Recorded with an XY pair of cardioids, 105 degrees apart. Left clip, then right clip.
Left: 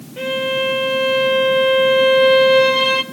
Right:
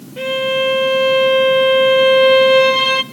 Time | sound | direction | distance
0.2 | a violin | 15° right | 1.6 m